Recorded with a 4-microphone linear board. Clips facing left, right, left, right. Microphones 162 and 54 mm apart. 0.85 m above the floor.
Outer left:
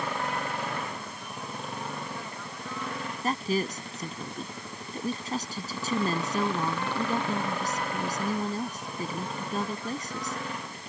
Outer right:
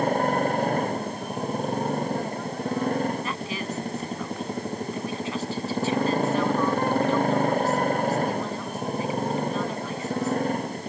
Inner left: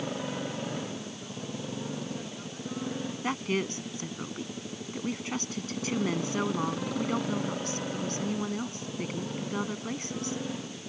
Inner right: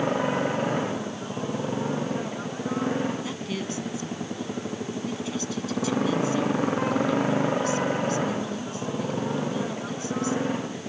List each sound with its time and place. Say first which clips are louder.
0.0 s a motorcycle: outer right 10 dB, inner right 10 dB; 45° right (ahead or behind)
3.2 s a woman speaking: outer left 2 dB, inner left 1 dB; 40° left (ahead or behind)